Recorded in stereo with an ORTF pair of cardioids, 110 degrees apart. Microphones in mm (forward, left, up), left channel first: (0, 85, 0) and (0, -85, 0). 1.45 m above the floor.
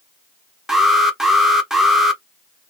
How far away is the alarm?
About 0.8 m.